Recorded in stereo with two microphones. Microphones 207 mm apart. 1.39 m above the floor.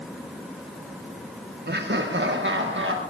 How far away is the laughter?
About 1.0 m.